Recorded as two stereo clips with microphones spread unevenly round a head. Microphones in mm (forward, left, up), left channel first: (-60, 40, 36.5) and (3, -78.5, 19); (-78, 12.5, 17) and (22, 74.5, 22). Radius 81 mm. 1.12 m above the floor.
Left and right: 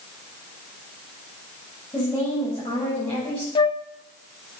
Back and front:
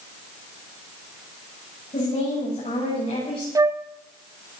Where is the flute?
75° left, 0.8 m.